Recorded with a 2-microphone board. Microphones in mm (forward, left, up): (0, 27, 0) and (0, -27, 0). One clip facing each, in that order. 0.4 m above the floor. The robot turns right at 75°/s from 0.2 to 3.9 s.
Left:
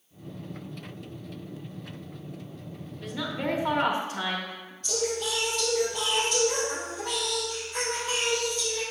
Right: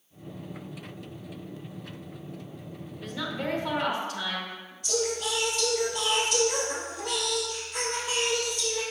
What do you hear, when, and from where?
3.0 s a woman speaking: 5° right, 0.9 m; by 4.7 s 65° left, 0.9 m
4.8 s singing: 5° right (ahead or behind), 2.5 m